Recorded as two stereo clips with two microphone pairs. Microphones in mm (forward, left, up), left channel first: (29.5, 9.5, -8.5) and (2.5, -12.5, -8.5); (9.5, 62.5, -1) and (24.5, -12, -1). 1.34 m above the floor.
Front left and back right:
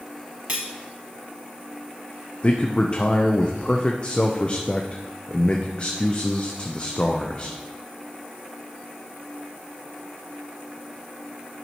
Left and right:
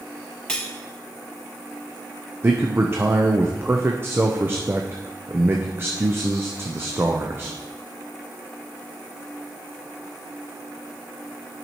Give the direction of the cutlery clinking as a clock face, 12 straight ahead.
6 o'clock.